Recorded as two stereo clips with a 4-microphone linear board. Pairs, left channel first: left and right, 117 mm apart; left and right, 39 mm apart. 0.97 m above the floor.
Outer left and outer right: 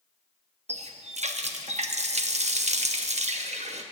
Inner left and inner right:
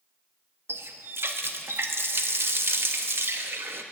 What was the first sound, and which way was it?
A running tap, 70° right (ahead or behind).